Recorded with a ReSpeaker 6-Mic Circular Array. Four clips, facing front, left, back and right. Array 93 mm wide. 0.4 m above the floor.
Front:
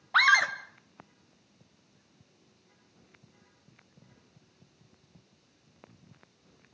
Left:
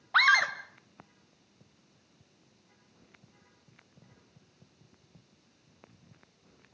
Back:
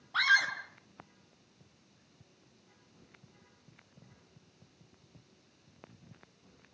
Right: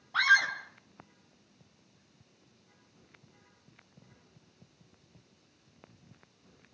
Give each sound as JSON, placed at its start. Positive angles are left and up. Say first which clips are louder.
{"t": 0.1, "sound": "a scream", "louder": "left 2 dB, front 5 dB", "azimuth_deg": 45, "distance_m": 2.5}